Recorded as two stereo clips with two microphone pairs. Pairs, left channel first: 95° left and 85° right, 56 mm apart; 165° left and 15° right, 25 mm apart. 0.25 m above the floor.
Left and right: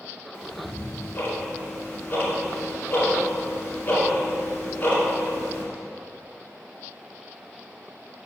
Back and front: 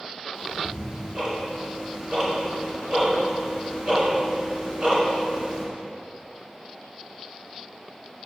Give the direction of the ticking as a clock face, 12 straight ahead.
11 o'clock.